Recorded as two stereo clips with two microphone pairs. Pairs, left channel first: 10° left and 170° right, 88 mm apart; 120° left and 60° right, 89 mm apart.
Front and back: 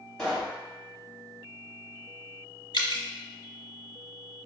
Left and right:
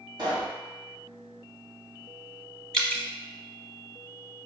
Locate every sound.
0.2 s a pop: 70° right, 1.6 m
2.7 s dripping: 40° left, 0.8 m